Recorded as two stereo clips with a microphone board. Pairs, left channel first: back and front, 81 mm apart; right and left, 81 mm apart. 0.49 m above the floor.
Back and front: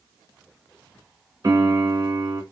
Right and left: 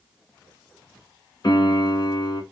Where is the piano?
50° right, 1.8 m.